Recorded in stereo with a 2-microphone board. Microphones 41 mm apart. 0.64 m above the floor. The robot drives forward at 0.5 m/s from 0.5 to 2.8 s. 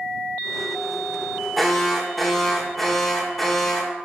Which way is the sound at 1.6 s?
5° left (ahead or behind).